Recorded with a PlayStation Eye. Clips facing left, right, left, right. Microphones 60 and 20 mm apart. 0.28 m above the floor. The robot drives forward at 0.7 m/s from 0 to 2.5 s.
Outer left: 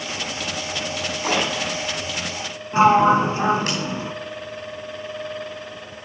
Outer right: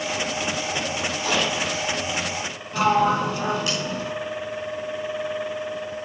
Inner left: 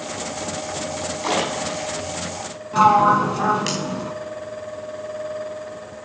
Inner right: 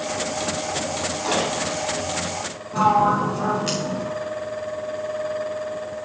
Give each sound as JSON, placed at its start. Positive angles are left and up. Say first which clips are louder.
{"t": 1.2, "sound": "a splash", "louder": "outer left 2 dB, inner left 1 dB", "side_deg": 45, "distance_m": 5.0}
{"t": 2.7, "sound": "a sliding door", "louder": "outer left 5 dB, inner left 4 dB", "side_deg": 30, "distance_m": 1.0}